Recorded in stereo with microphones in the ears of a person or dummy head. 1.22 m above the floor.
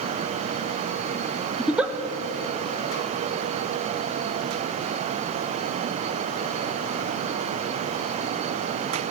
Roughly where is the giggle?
Centre.